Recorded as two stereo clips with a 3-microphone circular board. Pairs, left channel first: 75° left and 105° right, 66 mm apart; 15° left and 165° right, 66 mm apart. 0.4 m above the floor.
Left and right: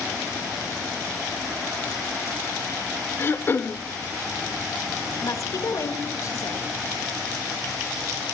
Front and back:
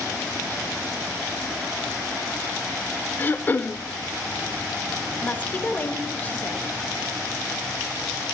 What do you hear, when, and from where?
3.2 s throat clearing: 55° left, 0.6 m
5.2 s a woman speaking: 75° left, 1.2 m